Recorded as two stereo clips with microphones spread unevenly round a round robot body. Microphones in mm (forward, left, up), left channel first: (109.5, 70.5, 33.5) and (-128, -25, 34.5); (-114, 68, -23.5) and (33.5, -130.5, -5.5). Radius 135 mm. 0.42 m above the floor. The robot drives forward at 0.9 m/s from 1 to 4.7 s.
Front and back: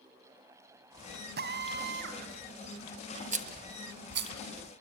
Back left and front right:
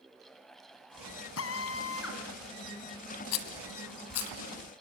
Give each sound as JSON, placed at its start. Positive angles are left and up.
{"t": 1.4, "sound": "a drill", "azimuth_deg": 150, "distance_m": 3.0}
{"t": 3.3, "sound": "a rattle", "azimuth_deg": 140, "distance_m": 1.6}